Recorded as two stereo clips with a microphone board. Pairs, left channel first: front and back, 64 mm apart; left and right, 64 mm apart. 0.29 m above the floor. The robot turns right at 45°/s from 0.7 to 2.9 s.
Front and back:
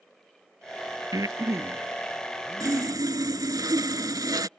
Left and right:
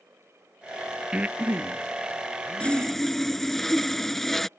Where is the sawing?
165° left; by 4.5 s 175° left.